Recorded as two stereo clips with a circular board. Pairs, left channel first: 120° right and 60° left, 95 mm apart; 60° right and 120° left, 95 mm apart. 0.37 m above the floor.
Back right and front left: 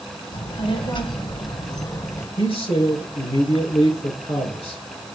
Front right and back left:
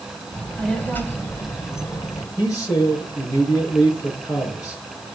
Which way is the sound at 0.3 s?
130° right.